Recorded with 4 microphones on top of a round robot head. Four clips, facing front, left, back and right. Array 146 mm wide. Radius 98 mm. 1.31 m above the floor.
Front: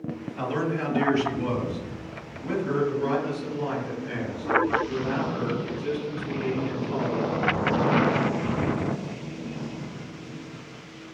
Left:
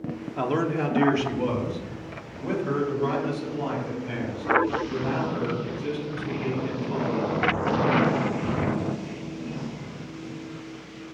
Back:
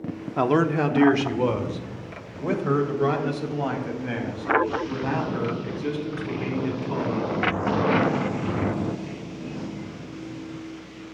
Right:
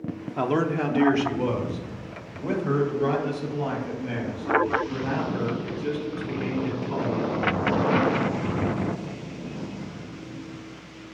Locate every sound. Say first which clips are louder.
0.4 s a man speaking: right 1 dB, back 7 dB; straight behind, 0.8 m; by 7.5 s 175° left, 5 m